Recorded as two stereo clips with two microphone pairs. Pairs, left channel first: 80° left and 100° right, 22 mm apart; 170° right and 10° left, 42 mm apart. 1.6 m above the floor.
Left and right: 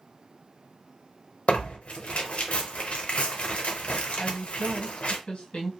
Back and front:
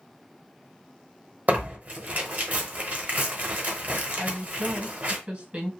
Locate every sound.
1.5 s tearing paper: 55° left, 0.9 m
4.2 s a woman speaking: 60° left, 1.1 m